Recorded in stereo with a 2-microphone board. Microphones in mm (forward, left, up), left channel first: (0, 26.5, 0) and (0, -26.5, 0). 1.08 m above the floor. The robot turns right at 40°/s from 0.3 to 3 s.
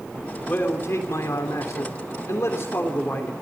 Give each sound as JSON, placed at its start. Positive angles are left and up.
{"t": 0.5, "sound": "a man speaking", "azimuth_deg": 35, "distance_m": 3.0}